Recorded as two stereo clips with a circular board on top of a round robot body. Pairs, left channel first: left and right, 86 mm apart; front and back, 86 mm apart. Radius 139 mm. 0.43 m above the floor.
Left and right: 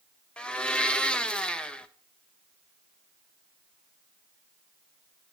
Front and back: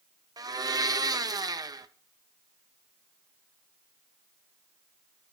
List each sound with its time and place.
0.4 s a blender: 165° left, 1.0 m